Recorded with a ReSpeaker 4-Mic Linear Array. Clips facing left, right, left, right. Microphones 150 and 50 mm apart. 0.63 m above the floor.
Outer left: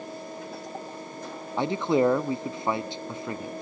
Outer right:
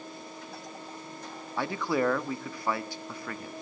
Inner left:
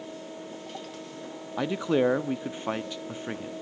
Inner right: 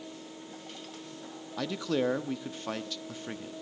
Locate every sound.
1.6 s a man speaking: 20° left (ahead or behind), 0.7 m